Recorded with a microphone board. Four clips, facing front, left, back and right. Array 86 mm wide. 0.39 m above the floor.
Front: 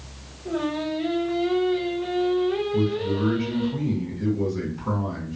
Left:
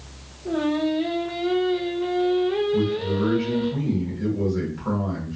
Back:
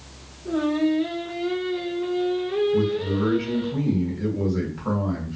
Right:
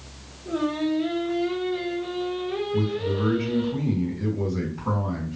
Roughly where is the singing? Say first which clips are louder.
Left 2 dB, back 5 dB; left.